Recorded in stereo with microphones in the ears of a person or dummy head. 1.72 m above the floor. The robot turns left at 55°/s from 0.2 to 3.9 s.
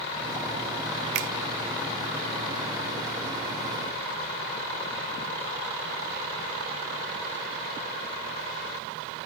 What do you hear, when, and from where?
1.1 s a finger snap: 70° right (ahead or behind); by 1.3 s 65° right (ahead or behind)